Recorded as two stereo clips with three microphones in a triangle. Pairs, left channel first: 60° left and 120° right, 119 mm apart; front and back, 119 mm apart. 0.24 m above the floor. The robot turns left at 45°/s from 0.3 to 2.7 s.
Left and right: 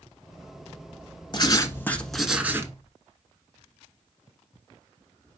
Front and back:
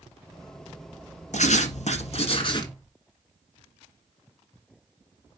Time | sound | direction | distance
1.3 | writing | 10° left | 1.3 m